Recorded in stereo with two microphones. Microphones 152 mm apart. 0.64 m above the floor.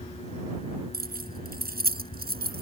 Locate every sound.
0.9 s keys jangling: 80° right; by 2.6 s 85° right